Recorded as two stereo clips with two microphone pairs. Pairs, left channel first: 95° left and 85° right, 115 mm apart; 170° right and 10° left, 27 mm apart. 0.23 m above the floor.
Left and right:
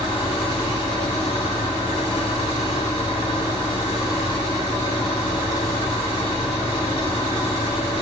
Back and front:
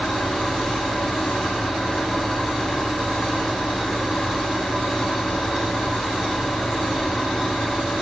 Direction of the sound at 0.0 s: 120° left.